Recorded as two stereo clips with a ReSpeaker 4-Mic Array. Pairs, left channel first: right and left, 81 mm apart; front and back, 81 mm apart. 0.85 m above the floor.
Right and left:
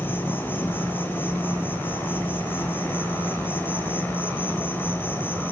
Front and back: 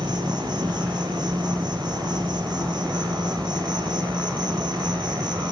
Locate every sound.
0.0 s an insect: 155° right, 5 m